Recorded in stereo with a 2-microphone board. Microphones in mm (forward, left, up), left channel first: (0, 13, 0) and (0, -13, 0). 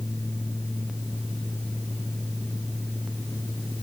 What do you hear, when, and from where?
Only background noise.